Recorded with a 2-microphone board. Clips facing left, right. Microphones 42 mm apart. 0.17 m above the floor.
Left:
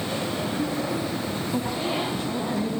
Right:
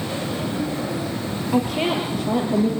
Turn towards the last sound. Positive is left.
turn(degrees=-75)  # may be behind; listen again after turning